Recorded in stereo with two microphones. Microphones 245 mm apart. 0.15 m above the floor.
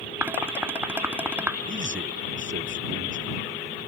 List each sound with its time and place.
0.2 s dishes clattering: 10° right (ahead or behind)
1.7 s a man speaking: 45° right (ahead or behind)